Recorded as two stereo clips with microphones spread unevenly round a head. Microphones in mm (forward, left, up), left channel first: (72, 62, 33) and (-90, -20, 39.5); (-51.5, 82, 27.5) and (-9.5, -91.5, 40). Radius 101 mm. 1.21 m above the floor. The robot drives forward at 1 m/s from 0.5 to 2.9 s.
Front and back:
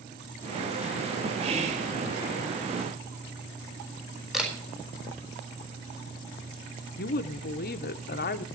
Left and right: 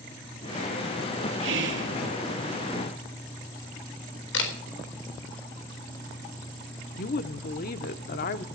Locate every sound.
1.4 s whispering: 90° right, 2.5 m; by 1.9 s 100° right, 2.5 m
4.3 s a camera shutter: 120° left, 4 m
7.0 s a woman speaking: 65° left, 0.7 m